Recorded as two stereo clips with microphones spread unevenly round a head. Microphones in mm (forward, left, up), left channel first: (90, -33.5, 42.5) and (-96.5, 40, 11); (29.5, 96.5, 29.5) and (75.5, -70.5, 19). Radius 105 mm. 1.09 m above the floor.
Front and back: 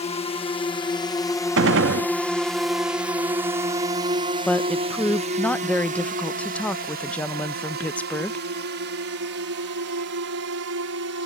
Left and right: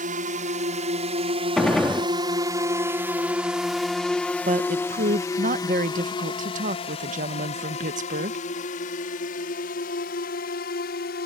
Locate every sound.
0.0 s a drone: 80° right; by 11.3 s 150° left
1.6 s a gunshot: 165° right
4.5 s a woman speaking: 110° right